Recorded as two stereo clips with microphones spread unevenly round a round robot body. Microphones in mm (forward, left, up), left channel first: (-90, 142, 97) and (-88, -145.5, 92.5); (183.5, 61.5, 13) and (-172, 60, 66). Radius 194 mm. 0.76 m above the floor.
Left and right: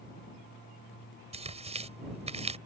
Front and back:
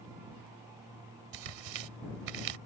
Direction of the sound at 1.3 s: 160° right.